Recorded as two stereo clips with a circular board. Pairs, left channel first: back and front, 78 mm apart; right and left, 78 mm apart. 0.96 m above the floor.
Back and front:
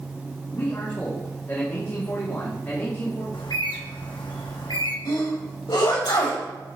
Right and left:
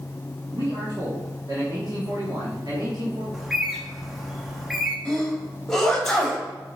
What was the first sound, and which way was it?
A man speaking, 125° left.